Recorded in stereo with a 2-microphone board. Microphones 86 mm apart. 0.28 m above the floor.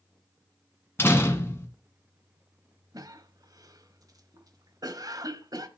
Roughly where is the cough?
Right.